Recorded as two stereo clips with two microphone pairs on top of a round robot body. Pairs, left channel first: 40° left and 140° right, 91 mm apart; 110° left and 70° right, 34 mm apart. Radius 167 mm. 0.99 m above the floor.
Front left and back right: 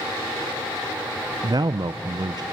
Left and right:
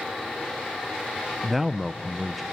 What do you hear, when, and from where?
1.4 s a man speaking: 145° right, 0.8 m